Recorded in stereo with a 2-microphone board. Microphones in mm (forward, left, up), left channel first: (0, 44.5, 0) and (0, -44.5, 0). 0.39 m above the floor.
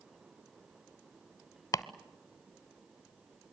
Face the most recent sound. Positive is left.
turn(degrees=40)  # may be behind; listen again after turning